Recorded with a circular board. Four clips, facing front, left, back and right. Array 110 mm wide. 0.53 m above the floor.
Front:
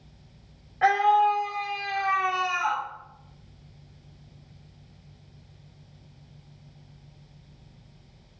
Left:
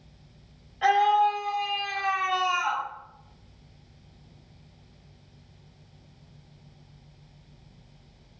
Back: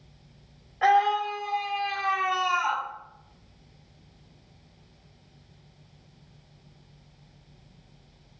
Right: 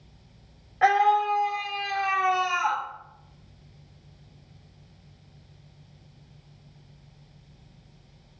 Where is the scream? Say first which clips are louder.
Even, front 2 dB; 80° right, 1.8 m.